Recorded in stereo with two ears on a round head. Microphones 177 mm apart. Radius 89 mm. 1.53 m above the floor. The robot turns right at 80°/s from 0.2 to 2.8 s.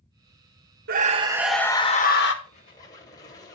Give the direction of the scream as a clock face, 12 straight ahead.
2 o'clock.